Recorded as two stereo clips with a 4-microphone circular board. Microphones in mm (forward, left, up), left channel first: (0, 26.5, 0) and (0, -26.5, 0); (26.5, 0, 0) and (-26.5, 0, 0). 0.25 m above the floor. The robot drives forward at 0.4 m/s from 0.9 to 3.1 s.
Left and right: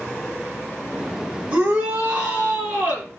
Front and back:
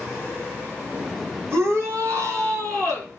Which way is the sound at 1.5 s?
150° right.